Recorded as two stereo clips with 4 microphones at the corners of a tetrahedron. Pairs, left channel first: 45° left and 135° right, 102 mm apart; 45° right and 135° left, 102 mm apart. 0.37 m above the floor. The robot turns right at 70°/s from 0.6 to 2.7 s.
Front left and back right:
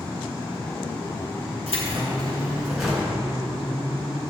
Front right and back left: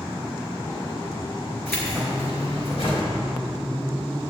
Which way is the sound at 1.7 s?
125° right.